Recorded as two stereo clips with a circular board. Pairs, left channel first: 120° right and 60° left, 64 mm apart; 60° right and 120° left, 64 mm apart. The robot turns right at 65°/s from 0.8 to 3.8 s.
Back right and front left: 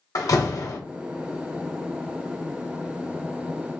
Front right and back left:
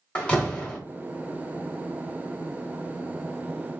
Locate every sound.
0.1 s a door slam: 135° right, 0.9 m